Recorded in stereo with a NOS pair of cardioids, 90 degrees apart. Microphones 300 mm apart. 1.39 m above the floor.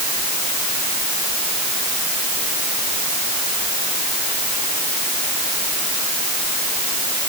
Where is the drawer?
I don't hear a drawer.